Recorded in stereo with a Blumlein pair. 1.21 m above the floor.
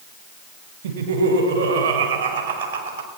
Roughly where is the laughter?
Ahead right.